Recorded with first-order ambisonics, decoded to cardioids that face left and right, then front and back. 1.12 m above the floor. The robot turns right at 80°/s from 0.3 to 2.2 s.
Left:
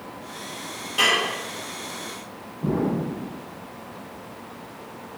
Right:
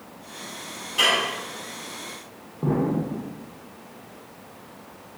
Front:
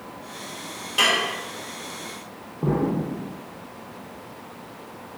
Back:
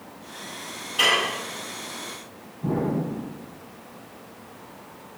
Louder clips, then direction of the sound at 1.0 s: Even, even; 10° left.